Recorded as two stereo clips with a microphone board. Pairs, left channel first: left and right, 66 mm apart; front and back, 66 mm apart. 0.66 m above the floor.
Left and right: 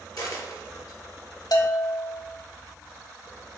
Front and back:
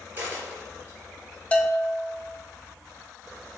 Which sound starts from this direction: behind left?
A dropped coin, at 0.2 s.